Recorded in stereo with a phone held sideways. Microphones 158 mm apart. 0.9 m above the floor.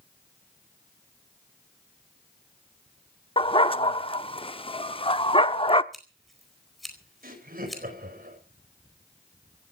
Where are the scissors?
Centre (ahead or behind), 4 m.